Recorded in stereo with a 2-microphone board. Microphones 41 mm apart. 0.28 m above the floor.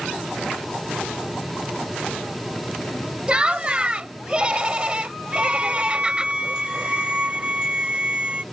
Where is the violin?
30° right (ahead or behind).